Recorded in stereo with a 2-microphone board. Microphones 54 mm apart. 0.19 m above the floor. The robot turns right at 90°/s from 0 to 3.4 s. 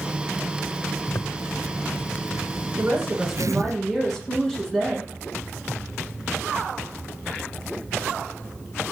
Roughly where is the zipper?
Ahead left.